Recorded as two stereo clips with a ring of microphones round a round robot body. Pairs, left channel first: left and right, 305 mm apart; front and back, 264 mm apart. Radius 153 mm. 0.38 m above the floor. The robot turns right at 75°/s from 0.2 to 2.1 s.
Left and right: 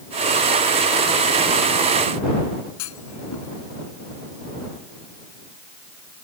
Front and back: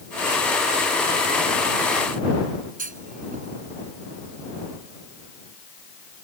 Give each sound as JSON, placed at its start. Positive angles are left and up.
{"t": 2.8, "sound": "a clunk", "azimuth_deg": 120}